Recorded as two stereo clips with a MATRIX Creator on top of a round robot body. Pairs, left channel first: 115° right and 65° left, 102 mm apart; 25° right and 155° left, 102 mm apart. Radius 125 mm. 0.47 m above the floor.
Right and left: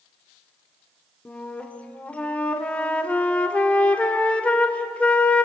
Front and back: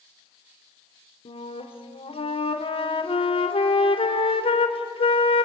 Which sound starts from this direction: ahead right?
A flute, at 1.2 s.